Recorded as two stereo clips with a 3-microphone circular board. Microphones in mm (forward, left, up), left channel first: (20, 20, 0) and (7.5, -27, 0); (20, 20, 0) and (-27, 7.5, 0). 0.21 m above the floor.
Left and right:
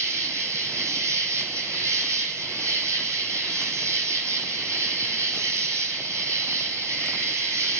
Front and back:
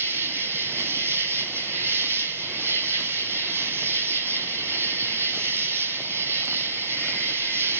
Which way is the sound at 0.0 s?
125° right.